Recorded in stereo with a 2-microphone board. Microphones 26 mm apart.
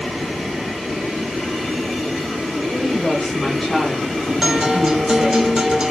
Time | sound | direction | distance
2.6 | a woman speaking | 20° left (ahead or behind) | 1.3 m
4.4 | a guitar | 20° right (ahead or behind) | 0.7 m